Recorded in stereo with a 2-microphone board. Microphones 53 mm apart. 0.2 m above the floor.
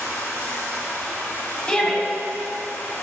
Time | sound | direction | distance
0.0 | running water | 45° left (ahead or behind) | 2 m
1.7 | a shout | 20° left (ahead or behind) | 1.3 m